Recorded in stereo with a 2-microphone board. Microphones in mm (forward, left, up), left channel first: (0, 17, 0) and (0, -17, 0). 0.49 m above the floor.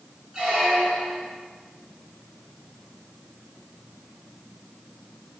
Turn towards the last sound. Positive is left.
turn(degrees=-15)  # may be behind; listen again after turning